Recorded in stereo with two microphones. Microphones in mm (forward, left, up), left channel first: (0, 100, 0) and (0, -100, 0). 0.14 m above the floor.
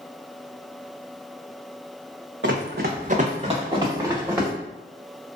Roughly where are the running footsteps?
Right.